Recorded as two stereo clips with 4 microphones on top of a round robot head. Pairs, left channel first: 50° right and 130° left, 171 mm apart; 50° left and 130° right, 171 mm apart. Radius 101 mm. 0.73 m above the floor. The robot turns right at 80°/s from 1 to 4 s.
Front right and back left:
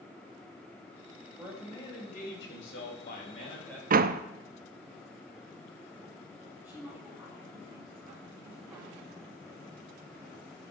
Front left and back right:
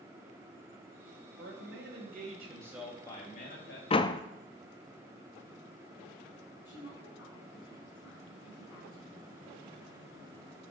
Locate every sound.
1.4 s a man speaking: 155° right, 3.5 m; by 3.8 s 40° left, 3.5 m
3.9 s a door slam: 100° left, 0.6 m; by 4.2 s 110° left, 0.6 m
6.7 s a woman speaking: 50° left, 6.5 m